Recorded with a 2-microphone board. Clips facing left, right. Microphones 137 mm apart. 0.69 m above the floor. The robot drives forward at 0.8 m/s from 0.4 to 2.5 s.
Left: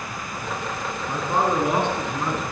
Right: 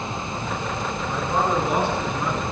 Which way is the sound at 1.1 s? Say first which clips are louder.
Left 1 dB; 15° left (ahead or behind).